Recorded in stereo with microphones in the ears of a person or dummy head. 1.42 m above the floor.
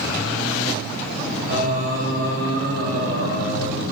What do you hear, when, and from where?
1.5 s singing: 70° right (ahead or behind), 0.8 m